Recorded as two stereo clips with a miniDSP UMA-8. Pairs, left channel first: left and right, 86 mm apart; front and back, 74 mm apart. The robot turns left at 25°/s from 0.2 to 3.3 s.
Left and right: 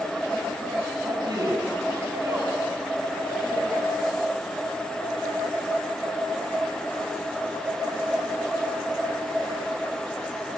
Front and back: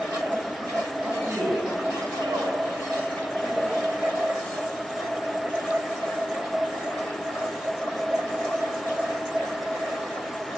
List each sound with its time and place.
1.0 s a man speaking: 115° right, 8 m; by 3.8 s 170° right, 8 m